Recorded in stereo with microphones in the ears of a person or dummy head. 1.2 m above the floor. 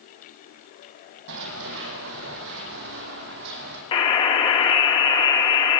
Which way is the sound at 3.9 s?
25° left (ahead or behind).